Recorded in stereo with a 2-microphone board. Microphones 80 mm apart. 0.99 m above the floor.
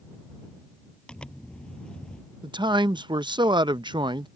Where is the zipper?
10° left (ahead or behind).